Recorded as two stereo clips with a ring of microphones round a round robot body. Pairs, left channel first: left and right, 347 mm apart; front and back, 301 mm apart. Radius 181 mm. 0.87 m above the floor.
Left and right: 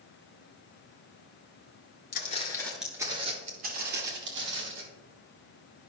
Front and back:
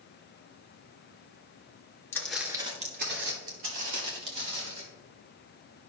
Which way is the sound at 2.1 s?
70° left.